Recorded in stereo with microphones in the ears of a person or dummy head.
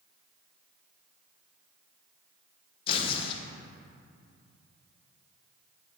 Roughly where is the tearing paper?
Left.